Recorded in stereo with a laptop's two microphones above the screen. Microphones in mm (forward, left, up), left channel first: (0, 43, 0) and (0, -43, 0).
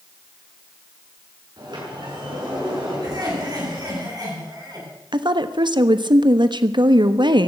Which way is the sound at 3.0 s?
50° right (ahead or behind).